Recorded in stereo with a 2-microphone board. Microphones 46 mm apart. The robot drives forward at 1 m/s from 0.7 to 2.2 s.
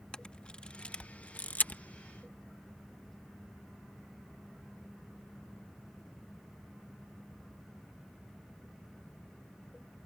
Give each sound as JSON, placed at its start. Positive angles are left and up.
{"t": 0.1, "sound": "a camera shutter", "side_deg": 20}